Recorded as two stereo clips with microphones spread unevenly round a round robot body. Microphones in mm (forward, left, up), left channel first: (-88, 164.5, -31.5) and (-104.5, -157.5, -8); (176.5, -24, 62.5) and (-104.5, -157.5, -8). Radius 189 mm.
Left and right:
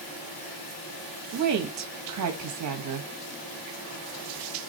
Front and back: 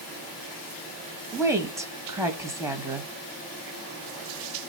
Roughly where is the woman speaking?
Right.